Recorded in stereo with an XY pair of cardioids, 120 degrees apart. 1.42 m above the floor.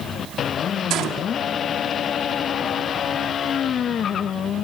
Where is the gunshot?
65° right, 3 m.